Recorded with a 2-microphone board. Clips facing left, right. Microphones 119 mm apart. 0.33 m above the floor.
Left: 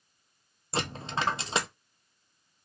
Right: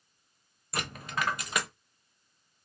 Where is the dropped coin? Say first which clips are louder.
Left 3 dB; 25° left (ahead or behind), 0.6 m.